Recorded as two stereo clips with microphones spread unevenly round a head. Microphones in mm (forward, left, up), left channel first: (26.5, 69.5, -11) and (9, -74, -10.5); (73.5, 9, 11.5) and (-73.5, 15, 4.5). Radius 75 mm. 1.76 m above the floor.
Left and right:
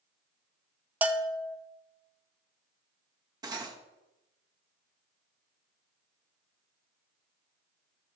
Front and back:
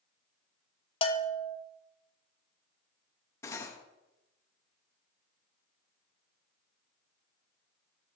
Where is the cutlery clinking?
55° right, 1.1 m.